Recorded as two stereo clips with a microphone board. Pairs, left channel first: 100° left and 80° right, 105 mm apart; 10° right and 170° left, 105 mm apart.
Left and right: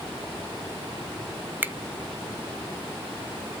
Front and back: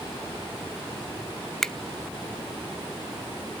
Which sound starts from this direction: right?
A finger snap, at 1.6 s.